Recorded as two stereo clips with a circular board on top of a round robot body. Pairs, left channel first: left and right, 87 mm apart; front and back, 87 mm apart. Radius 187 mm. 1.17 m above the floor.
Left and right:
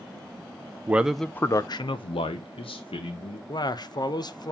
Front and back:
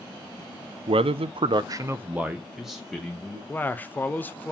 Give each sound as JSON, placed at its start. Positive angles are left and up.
{"t": 0.9, "sound": "a man speaking", "azimuth_deg": -160, "distance_m": 0.6}
{"t": 3.5, "sound": "a man speaking", "azimuth_deg": 65, "distance_m": 1.0}